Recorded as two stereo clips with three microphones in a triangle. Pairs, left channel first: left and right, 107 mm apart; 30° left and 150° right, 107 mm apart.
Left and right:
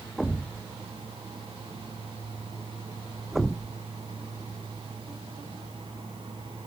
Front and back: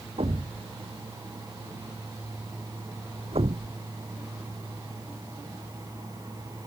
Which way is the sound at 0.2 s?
175° right.